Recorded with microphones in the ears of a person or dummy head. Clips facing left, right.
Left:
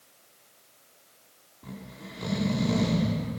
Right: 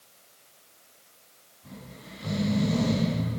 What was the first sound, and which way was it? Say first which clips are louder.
Snoring: left 3 dB; 80° left.